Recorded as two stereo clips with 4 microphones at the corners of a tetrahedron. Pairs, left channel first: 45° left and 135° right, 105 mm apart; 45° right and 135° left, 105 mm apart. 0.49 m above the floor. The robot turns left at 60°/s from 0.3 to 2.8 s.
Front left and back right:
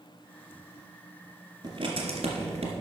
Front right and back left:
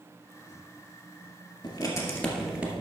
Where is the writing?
85° right, 2 m; by 2.7 s 150° right, 2 m.